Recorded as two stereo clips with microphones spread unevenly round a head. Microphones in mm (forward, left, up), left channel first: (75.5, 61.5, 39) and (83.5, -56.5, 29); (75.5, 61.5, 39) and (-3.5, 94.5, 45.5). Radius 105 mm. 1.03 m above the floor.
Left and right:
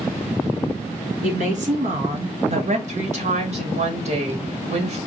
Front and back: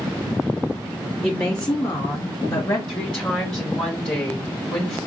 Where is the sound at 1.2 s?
90° right, 1.5 m; by 2.8 s 80° right, 0.7 m.